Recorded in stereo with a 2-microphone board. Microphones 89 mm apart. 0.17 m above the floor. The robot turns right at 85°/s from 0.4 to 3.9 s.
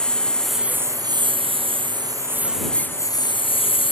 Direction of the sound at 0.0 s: 170° left.